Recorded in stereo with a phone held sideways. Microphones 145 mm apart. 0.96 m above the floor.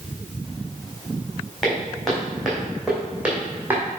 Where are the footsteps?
5° left (ahead or behind), 3.5 m; by 3.9 s 15° right (ahead or behind), 2.5 m.